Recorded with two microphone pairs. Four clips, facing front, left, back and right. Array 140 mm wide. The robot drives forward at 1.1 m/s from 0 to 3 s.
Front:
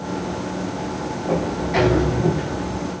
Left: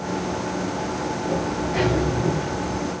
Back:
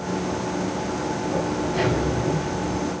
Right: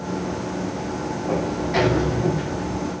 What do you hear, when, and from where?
1.3 s a sliding door: 35° right, 7.5 m; by 3.0 s 45° right, 6 m